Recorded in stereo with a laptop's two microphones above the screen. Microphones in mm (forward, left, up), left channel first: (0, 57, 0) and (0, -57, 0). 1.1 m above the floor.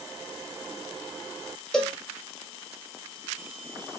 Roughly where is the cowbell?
Centre.